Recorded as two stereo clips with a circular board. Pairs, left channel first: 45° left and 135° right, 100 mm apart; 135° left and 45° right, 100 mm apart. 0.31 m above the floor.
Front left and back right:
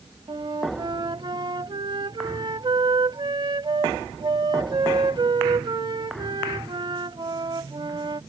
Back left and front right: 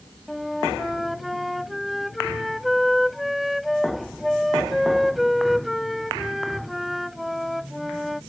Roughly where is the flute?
Behind right.